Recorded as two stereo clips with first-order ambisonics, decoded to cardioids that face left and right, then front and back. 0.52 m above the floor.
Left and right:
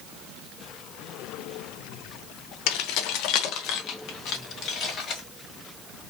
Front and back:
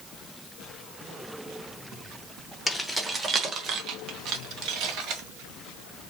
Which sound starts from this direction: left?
Keys jangling, at 2.7 s.